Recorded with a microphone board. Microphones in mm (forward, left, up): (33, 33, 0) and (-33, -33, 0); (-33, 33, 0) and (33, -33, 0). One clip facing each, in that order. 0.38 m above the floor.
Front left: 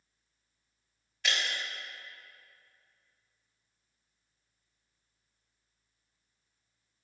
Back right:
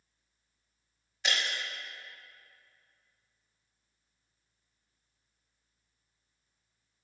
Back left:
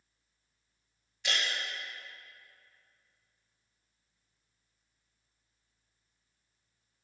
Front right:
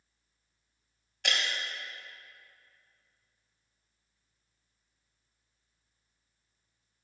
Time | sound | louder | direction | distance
1.2 | breaking glass | even, front right 1 dB | 65° right | 1.8 m